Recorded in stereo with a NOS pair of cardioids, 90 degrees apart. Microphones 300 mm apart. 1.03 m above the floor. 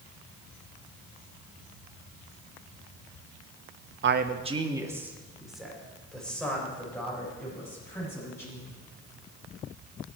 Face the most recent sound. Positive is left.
turn(degrees=10)